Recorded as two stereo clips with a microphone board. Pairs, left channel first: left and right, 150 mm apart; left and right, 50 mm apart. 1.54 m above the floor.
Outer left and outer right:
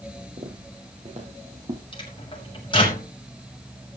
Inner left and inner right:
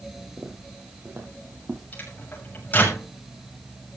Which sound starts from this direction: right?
Footsteps, at 0.4 s.